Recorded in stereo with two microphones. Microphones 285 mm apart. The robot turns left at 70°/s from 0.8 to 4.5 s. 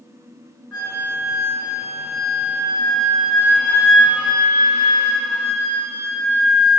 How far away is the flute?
About 4 m.